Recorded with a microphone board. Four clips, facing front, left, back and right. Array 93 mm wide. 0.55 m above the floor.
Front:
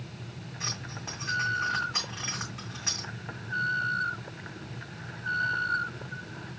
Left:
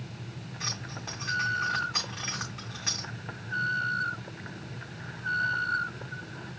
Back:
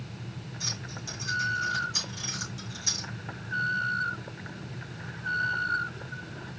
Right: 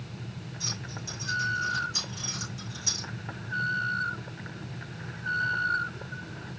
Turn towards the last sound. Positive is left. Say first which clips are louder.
# left 3 dB, front 3 dB
turn(degrees=45)